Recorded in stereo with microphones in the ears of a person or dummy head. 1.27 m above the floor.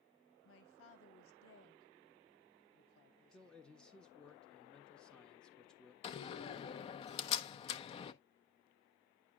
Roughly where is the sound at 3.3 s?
Centre.